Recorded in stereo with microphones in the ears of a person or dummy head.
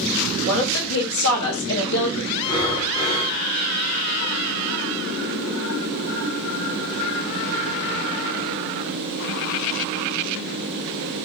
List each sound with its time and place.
0.5 s a woman speaking: 65° left (ahead or behind), 2 m; by 2.3 s 75° left (ahead or behind), 1.4 m
2.4 s breathing: 25° left (ahead or behind), 1.7 m